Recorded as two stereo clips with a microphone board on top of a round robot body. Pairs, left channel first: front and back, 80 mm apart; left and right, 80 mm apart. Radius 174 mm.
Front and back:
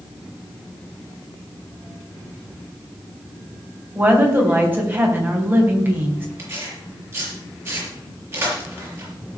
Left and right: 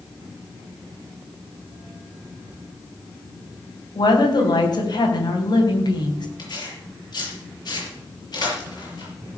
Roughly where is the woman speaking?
Behind left.